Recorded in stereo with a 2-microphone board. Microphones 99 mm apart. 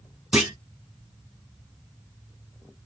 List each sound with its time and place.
0.3 s a clunk: 10° right (ahead or behind), 1.2 m